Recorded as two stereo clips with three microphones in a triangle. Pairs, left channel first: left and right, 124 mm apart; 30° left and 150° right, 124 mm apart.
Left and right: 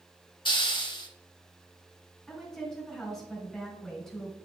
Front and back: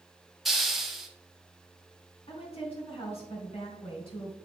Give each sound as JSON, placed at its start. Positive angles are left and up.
{"t": 0.5, "sound": "a hiss", "azimuth_deg": 120, "distance_m": 0.9}
{"t": 2.3, "sound": "a woman speaking", "azimuth_deg": 5, "distance_m": 2.5}